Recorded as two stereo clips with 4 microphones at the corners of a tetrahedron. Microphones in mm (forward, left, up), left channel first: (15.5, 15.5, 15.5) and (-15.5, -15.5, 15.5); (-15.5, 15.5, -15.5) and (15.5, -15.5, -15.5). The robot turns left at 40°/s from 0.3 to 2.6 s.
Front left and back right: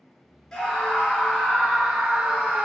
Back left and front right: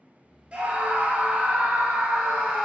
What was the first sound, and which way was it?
A scream, 30° right.